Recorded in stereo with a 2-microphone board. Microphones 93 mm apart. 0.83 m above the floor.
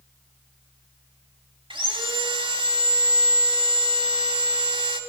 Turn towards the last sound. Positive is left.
turn(degrees=-70)  # may be behind; listen again after turning